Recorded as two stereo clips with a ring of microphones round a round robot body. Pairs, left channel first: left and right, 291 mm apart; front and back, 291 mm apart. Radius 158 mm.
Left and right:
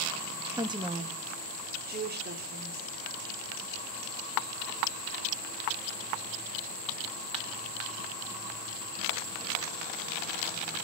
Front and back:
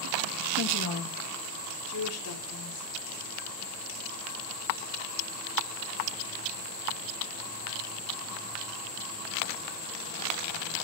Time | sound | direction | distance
0.6 | a woman speaking | 15° right | 0.8 m